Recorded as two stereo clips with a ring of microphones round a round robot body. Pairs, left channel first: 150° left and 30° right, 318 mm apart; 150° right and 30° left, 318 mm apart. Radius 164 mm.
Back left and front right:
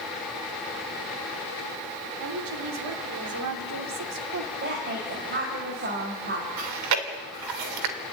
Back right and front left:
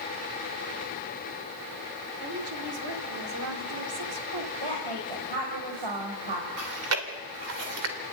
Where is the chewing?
15° right, 2.5 m.